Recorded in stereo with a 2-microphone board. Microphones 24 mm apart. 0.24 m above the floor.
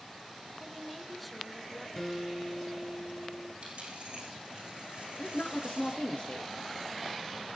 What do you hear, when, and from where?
0.6 s a woman speaking: centre (ahead or behind), 2.5 m; by 1.9 s 10° left (ahead or behind), 3 m
2.0 s a guitar: 20° left (ahead or behind), 3.5 m
3.6 s a dropped coin: 50° right (ahead or behind), 6.5 m
5.2 s a woman speaking: 60° left (ahead or behind), 3.5 m